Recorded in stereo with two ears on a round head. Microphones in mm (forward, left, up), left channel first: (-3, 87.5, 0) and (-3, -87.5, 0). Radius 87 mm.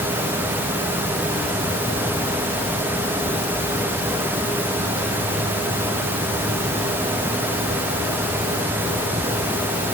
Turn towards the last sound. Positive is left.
No sound to turn to.